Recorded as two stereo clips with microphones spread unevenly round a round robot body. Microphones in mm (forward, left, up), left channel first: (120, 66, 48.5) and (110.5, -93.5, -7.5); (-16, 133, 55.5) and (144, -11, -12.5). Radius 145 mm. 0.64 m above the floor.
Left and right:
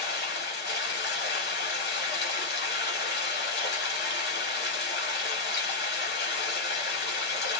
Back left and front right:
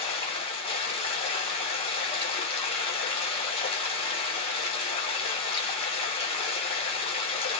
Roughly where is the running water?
Left.